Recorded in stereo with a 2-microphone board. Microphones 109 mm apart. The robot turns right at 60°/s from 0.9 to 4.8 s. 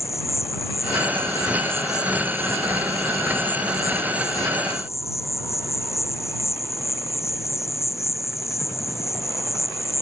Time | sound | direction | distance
0.0 | an insect | 155° left | ?